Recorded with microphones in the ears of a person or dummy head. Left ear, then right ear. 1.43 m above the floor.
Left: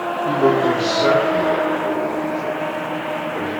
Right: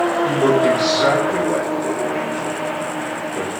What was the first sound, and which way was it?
A man speaking, 60° right (ahead or behind).